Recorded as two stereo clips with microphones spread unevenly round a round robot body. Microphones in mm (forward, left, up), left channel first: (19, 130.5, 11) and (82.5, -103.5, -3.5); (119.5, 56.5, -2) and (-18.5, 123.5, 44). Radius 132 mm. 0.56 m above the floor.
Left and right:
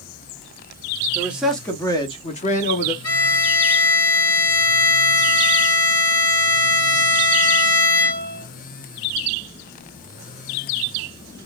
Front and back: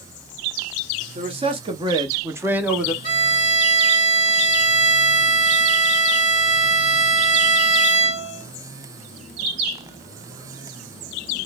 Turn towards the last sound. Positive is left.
turn(degrees=100)